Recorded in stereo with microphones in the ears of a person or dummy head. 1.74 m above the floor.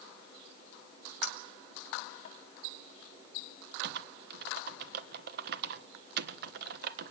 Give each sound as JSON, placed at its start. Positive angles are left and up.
{"t": 1.2, "sound": "a clink", "side_deg": 45, "distance_m": 2.0}
{"t": 3.8, "sound": "typing on a keyboard", "side_deg": -60, "distance_m": 1.3}